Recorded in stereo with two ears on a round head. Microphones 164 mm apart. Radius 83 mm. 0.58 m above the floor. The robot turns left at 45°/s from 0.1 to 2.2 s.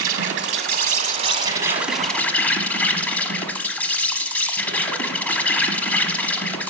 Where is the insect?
95° right, 1.1 m; by 6.7 s 170° left, 1.1 m.